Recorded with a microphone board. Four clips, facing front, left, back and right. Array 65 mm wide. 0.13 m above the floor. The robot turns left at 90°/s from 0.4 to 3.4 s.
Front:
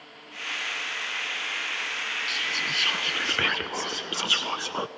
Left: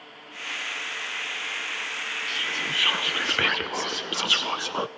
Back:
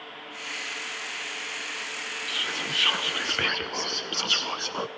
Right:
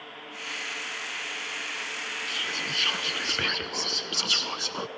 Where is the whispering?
175° left, 1.1 m; by 4.9 s 75° left, 1.1 m.